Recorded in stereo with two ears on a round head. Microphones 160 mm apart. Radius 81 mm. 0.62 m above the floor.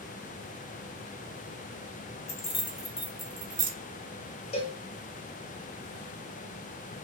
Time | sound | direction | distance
2.3 | keys jangling | 35° left (ahead or behind) | 0.8 m
4.5 | a cowbell | 35° left (ahead or behind) | 0.6 m